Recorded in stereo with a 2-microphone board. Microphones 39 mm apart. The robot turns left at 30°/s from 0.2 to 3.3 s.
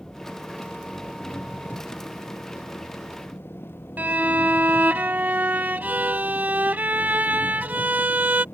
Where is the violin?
45° right (ahead or behind).